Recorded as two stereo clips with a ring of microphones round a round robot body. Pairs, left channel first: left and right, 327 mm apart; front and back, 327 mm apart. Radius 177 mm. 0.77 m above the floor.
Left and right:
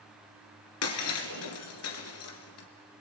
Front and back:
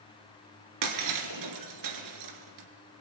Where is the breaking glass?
140° left, 2 m.